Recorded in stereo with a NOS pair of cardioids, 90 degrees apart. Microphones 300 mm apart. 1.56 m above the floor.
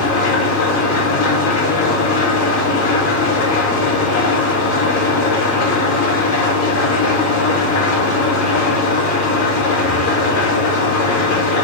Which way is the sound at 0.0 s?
65° left.